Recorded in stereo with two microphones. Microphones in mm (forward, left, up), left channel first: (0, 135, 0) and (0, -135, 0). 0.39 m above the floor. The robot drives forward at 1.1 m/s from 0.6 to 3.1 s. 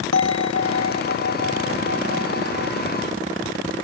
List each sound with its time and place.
0.1 s a bell: 75° right (ahead or behind); by 2.8 s 50° right (ahead or behind)